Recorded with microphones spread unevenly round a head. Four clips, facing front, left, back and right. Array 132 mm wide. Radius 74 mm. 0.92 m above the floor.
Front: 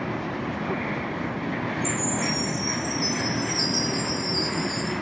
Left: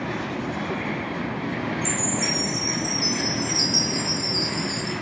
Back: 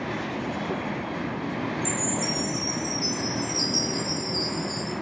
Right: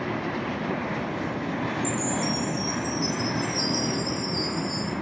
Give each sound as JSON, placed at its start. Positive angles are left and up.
{"t": 1.8, "sound": "a chime", "azimuth_deg": -150, "distance_m": 1.8}